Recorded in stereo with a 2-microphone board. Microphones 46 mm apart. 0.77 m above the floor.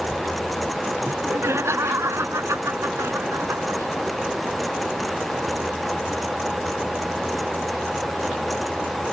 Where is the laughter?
75° right (ahead or behind).